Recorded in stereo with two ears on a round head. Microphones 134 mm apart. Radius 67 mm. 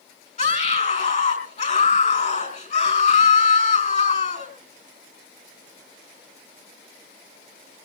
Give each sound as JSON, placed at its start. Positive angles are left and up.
{"t": 0.4, "sound": "a scream", "side_deg": 45, "distance_m": 5.0}